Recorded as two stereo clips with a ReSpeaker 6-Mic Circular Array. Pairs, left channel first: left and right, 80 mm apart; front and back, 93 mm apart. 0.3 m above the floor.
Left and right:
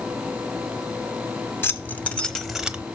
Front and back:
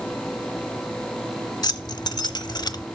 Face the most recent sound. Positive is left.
turn(degrees=-20)